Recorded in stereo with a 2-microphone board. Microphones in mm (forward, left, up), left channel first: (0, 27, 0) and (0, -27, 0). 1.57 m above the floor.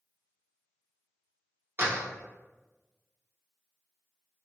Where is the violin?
I don't hear a violin.